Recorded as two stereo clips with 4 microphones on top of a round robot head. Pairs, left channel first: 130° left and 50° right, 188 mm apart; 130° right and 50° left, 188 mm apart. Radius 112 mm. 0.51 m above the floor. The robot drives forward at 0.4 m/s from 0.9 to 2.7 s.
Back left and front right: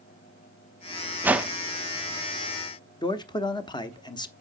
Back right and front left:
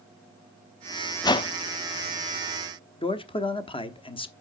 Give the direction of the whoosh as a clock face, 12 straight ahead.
4 o'clock.